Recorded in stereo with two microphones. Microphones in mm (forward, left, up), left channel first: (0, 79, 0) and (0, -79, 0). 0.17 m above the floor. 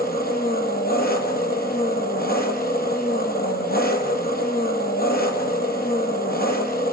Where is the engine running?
75° left (ahead or behind), 3.5 m.